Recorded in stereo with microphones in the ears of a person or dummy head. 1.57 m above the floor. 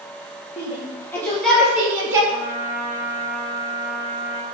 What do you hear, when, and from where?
0.6 s a shout: 30° left (ahead or behind), 2.5 m; by 2.2 s 15° right (ahead or behind), 2.5 m
2.3 s a trumpet: 50° left (ahead or behind), 3 m